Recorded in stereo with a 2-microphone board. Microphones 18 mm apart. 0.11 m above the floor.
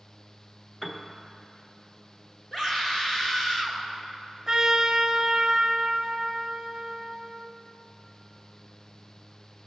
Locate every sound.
0.8 s a piano: 15° left (ahead or behind), 1.2 m
2.5 s a scream: 35° left (ahead or behind), 1.8 m
4.5 s a trumpet: 20° right (ahead or behind), 0.9 m